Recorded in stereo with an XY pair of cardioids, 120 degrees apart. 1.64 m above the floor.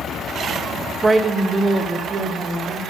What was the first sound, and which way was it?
A woman speaking, 20° right.